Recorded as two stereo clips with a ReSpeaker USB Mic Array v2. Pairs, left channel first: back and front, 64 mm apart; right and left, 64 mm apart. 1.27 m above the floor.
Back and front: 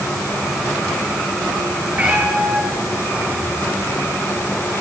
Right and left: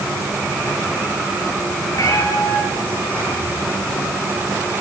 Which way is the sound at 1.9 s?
70° right.